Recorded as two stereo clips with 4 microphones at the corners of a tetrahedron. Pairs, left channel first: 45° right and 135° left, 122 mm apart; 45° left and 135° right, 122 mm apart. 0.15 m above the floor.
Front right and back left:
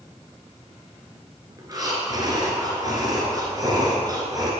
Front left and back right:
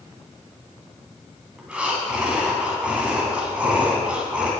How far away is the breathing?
About 1.6 m.